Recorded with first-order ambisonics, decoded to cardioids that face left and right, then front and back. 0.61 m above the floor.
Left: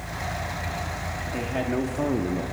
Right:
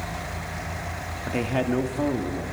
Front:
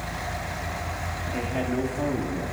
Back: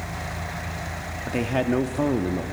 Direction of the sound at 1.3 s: 140° right.